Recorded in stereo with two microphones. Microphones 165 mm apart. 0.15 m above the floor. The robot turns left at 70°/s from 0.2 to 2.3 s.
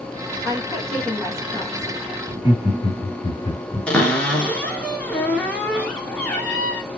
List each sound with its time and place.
0.5 s a woman speaking: 20° left (ahead or behind), 1.2 m; by 2.2 s centre (ahead or behind), 1.2 m
2.3 s laughter: 35° left (ahead or behind), 1.5 m
3.9 s a cupboard door: 10° left (ahead or behind), 1.0 m